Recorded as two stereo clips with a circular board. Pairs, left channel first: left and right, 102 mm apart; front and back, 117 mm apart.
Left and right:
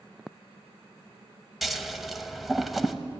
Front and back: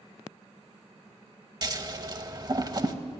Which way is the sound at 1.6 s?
Straight behind.